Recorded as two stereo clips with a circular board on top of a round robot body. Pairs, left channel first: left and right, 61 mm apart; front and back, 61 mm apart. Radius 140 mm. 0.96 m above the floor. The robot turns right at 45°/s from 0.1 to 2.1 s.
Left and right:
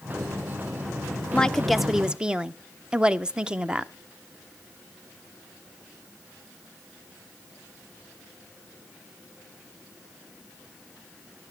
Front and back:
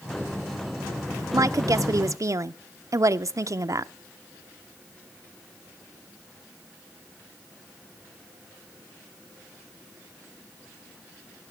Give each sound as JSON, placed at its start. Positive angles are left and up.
{"t": 1.3, "sound": "a woman speaking", "azimuth_deg": 160, "distance_m": 0.6}